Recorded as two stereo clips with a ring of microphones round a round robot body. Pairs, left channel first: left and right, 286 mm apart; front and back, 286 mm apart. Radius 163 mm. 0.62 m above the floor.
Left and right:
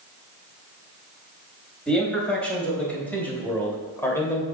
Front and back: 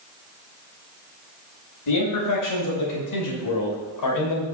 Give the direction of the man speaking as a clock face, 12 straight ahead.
12 o'clock.